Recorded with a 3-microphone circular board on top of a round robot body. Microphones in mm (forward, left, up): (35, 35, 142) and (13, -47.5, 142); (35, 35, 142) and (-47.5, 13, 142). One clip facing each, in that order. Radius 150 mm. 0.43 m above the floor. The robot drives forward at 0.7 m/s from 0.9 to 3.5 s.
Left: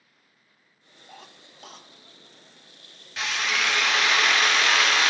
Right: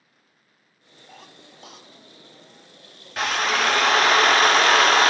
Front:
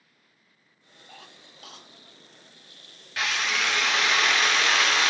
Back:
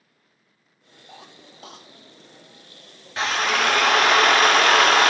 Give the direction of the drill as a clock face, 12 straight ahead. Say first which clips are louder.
Right 5 dB, back 6 dB; 4 o'clock.